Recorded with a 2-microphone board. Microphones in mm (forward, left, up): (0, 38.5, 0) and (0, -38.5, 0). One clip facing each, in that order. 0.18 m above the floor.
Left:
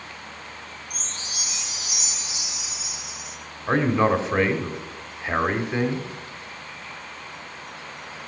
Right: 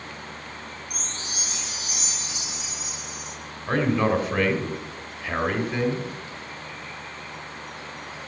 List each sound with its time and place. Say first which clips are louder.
0.9 s a chime: right 1 dB; 55° right (ahead or behind), 3 m
3.7 s a man speaking: left 2 dB; 20° left (ahead or behind), 1.4 m